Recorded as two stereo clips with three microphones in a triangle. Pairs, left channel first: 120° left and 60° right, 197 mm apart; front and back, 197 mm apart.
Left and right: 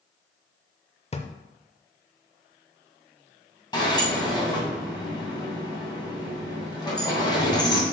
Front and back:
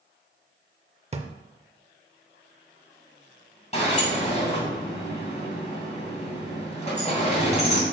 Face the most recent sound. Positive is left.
turn(degrees=55)